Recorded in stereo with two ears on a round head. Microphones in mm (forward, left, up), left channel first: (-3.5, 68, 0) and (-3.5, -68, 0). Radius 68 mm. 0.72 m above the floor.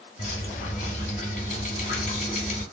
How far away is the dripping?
About 1.8 m.